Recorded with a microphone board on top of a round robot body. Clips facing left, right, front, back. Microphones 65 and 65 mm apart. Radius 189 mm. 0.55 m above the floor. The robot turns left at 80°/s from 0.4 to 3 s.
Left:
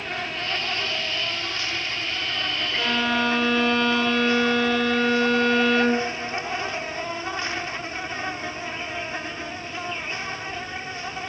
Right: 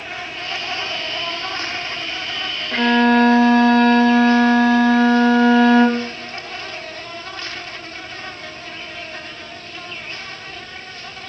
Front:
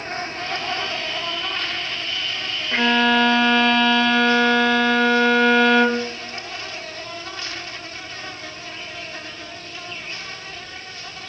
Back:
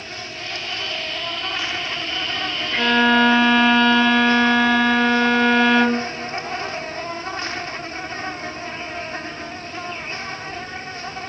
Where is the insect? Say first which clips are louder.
Even, front 5 dB; straight ahead, 1.5 m; by 11.3 s 150° left, 1.5 m.